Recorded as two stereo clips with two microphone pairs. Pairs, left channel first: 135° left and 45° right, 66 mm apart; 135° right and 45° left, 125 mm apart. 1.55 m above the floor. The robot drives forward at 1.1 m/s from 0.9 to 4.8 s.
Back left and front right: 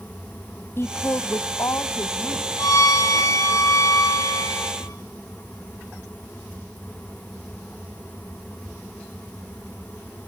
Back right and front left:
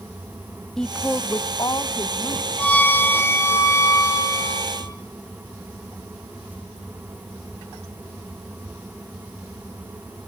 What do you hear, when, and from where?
0.8 s a woman speaking: 145° left, 0.6 m; by 3.6 s 175° left, 3.5 m
2.6 s a violin: 150° left, 1.8 m; by 5.0 s 165° left, 4 m